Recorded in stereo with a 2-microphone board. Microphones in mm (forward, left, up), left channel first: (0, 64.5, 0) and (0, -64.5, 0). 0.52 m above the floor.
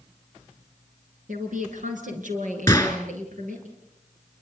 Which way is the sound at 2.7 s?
20° left (ahead or behind).